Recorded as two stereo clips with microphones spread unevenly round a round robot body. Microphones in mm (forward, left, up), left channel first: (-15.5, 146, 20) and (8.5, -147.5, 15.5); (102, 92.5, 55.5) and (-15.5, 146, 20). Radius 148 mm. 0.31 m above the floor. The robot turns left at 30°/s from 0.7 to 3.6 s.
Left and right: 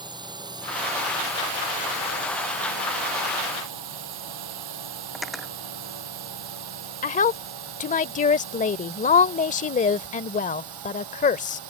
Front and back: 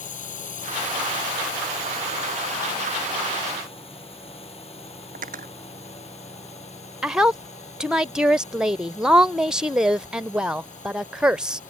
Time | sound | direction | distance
0.0 | a drone | 10° right | ?
5.2 | cutlery clinking | 175° right | ?
7.0 | a woman speaking | 120° left | ?